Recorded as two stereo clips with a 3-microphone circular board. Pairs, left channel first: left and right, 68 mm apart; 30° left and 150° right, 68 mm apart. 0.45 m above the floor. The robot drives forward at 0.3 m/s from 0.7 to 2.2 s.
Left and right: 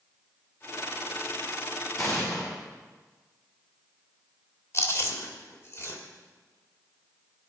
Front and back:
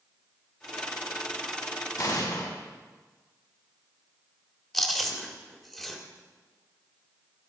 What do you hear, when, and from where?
2.0 s an explosion: 50° left, 4 m
4.7 s chewing: 120° left, 1.9 m